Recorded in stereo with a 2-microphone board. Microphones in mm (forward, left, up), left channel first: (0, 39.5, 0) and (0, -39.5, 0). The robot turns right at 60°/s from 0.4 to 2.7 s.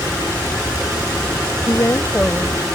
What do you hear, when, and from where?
1.7 s a woman speaking: 125° left; by 2.8 s 170° right